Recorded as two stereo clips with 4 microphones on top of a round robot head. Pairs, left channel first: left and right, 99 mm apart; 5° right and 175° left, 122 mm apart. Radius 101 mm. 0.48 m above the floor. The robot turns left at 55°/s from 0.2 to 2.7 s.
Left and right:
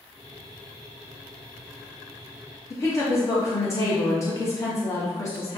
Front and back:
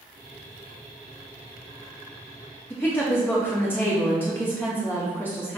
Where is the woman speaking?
60° left, 0.9 m.